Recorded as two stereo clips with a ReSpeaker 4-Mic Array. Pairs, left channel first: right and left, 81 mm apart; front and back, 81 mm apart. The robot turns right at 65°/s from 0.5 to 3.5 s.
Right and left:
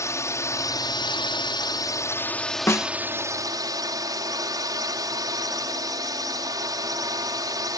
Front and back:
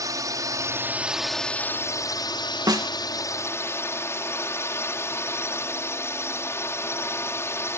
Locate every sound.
0.0 s a drone: 140° right; by 7.8 s 55° left
2.7 s a snare drum: 145° right; by 2.9 s 130° right